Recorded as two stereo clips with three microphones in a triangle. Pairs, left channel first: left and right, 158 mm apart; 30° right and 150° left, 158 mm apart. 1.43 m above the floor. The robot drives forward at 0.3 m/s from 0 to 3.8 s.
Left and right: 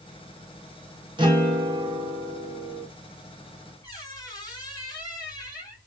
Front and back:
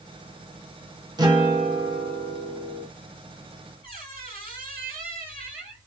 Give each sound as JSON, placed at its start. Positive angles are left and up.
{"t": 1.2, "sound": "a guitar", "azimuth_deg": -145, "distance_m": 1.1}
{"t": 3.8, "sound": "a squeak", "azimuth_deg": 155, "distance_m": 1.9}